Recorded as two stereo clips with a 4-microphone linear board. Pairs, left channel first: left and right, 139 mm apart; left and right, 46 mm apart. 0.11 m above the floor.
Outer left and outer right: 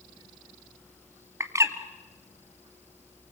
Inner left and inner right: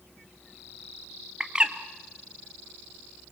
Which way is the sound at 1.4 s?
20° right (ahead or behind).